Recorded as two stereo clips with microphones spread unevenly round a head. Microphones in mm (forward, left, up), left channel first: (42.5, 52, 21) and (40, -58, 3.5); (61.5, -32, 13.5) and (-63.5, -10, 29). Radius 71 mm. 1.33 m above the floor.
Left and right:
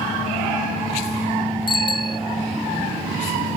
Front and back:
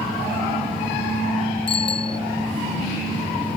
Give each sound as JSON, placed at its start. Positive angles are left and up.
{"t": 1.7, "sound": "a bicycle bell", "azimuth_deg": 45}